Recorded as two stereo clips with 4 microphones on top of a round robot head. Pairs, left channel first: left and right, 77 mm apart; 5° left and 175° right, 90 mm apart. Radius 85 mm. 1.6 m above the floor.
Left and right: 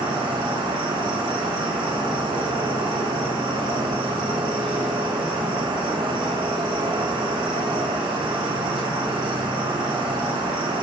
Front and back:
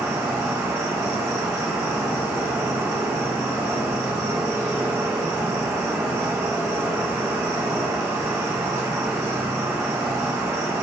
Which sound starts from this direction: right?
An insect, at 0.0 s.